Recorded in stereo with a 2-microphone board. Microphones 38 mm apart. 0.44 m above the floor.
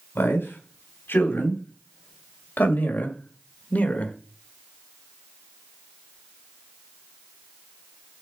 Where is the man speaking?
65° left (ahead or behind), 3.5 m; by 4.2 s 35° left (ahead or behind), 1.6 m.